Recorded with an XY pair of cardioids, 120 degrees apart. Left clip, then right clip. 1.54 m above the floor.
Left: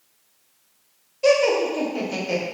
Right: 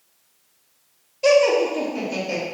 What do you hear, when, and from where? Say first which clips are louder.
1.2 s laughter: right 2 dB; 10° right, 0.6 m; by 2.4 s 20° left, 1.1 m